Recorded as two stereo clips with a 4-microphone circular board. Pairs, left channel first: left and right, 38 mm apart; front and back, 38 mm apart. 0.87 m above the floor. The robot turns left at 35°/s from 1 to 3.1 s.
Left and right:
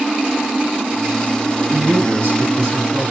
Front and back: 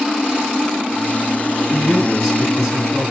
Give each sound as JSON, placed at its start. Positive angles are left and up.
{"t": 1.7, "sound": "a man speaking", "azimuth_deg": -75, "distance_m": 7.0}